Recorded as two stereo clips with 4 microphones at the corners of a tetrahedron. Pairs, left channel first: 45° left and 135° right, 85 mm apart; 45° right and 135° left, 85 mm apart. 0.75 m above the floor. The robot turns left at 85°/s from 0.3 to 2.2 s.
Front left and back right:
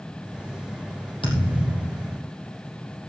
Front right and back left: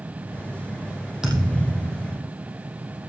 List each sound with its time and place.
1.2 s a thud: 50° left, 4.5 m; by 2.3 s 30° right, 4.5 m